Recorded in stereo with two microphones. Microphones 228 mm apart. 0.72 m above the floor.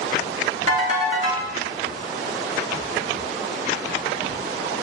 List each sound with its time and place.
0.7 s a ringtone: 70° left (ahead or behind), 0.8 m